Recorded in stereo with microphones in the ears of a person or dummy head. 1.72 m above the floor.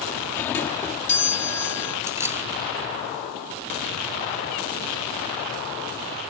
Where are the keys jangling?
10° right (ahead or behind).